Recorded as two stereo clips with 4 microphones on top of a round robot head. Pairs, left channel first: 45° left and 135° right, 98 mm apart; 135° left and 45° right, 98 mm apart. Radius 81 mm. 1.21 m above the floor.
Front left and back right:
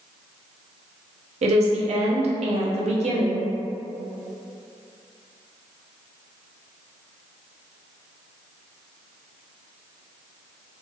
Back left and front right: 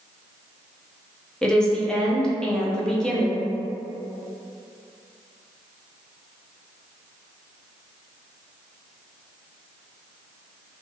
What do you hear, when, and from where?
1.4 s a woman speaking: 140° right, 0.7 m